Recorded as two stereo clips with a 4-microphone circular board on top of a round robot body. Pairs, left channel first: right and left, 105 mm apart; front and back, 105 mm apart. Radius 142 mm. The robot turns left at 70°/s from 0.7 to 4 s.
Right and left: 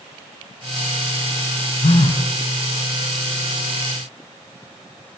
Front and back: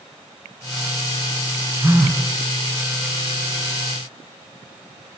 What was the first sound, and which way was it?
A phone buzzing, 105° right.